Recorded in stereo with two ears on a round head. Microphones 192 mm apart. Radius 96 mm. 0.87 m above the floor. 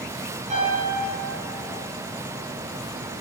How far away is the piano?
About 9 m.